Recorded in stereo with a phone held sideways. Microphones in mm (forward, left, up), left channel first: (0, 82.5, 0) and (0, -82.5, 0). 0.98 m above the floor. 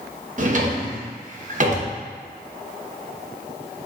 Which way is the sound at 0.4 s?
50° right (ahead or behind).